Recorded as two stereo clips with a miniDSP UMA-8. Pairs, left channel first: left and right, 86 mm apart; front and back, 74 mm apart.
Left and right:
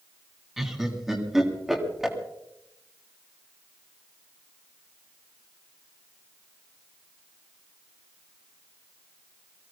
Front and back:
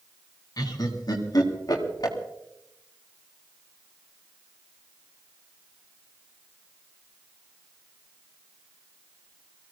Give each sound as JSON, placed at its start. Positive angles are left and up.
{"t": 0.6, "sound": "laughter", "azimuth_deg": -5, "distance_m": 3.0}